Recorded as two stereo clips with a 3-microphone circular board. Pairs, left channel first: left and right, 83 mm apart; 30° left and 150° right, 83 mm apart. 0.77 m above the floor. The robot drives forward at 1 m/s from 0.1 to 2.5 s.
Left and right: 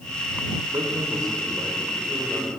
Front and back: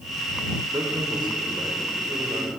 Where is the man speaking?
120° right, 3.5 m; by 2.5 s 140° right, 4.5 m.